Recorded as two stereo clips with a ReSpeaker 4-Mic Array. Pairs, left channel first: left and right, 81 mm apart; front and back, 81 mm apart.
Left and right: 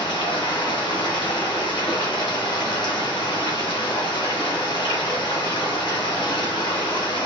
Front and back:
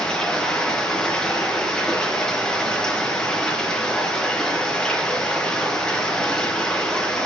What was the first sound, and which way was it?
Running water, 80° left.